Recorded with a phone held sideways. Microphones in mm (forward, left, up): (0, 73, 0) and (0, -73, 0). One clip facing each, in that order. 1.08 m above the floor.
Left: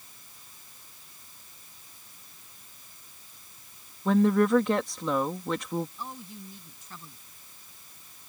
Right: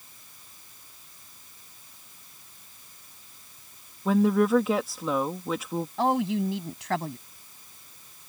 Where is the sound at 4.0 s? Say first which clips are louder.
Even; 5° right (ahead or behind).